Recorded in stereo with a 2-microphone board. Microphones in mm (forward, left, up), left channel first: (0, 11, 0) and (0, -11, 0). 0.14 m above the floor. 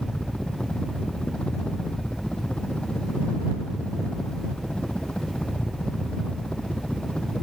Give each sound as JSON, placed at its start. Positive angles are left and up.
{"t": 0.0, "sound": "a helicopter", "side_deg": 65}